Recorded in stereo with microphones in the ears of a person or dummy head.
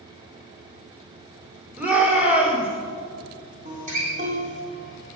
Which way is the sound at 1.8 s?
15° right (ahead or behind).